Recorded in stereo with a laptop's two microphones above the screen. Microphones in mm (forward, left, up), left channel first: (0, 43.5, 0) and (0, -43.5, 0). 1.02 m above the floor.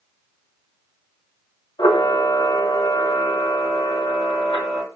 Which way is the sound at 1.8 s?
65° left (ahead or behind).